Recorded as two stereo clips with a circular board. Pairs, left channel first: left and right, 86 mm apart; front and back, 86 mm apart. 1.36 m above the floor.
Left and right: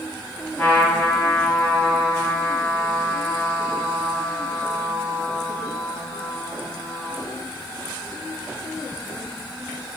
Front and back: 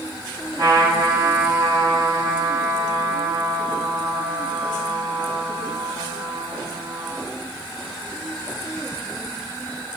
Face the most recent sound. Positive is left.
turn(degrees=150)